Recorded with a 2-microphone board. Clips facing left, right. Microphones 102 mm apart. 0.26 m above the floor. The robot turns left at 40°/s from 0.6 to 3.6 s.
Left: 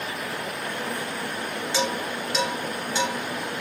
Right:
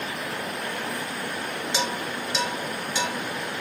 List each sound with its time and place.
1.7 s dishes clattering: 20° right (ahead or behind), 1.3 m; by 3.1 s 30° left (ahead or behind), 1.3 m